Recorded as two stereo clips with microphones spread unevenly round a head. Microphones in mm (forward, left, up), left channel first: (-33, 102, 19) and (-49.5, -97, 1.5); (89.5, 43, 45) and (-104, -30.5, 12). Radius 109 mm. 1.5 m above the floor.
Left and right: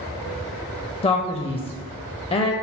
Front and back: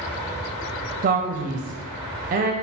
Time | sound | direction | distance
1.0 | a man speaking | 150° left | 0.5 m